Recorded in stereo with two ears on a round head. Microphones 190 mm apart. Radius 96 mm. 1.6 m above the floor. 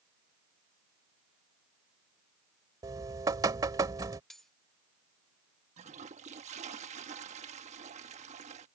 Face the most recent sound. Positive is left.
turn(degrees=-35)  # may be behind; listen again after turning